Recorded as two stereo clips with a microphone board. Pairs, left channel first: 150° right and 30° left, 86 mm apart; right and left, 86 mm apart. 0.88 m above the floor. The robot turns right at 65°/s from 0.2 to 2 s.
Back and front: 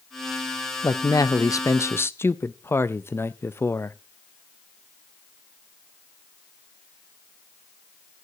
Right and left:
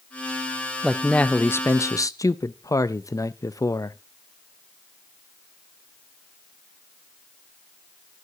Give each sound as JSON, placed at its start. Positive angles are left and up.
{"t": 0.8, "sound": "a man speaking", "azimuth_deg": 180, "distance_m": 0.6}